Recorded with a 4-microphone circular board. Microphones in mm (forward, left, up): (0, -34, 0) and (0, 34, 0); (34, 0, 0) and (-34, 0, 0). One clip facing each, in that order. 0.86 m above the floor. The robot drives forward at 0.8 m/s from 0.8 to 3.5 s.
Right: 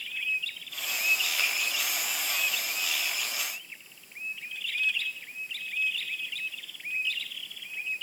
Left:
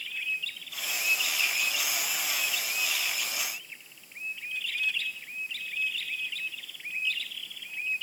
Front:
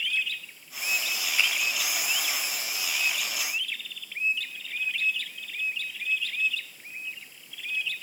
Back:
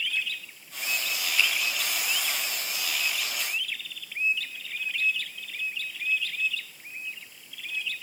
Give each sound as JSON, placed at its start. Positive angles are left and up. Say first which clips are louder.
{"t": 1.4, "sound": "a finger snap", "louder": "right 1 dB, back 1 dB", "azimuth_deg": -70, "distance_m": 4.0}